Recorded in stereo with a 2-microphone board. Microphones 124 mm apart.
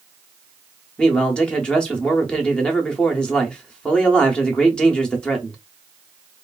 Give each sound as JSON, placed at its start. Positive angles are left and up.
{"t": 1.0, "sound": "a man speaking", "side_deg": 5, "distance_m": 0.7}